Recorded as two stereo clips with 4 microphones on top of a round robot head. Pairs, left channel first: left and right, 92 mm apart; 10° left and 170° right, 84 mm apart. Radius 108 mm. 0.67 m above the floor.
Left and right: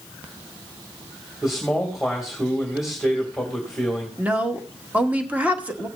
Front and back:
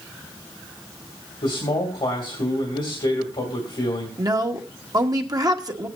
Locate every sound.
1.4 s a man speaking: straight ahead, 2.5 m
4.2 s a woman speaking: 160° right, 1.4 m